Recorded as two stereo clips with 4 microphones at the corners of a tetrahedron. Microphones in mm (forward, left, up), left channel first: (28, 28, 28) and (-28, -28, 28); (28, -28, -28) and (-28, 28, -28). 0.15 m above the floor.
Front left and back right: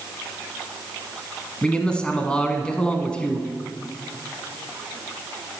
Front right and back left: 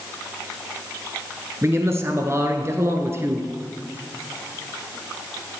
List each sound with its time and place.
1.6 s a man speaking: 115° left, 1.2 m